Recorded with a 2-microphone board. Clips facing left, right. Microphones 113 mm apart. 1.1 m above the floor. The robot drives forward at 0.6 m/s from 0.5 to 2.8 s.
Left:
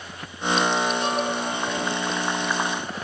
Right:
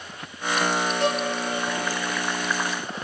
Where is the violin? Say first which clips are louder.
Right 1 dB; 70° right (ahead or behind), 3 m; by 1.3 s 75° right (ahead or behind), 3 m.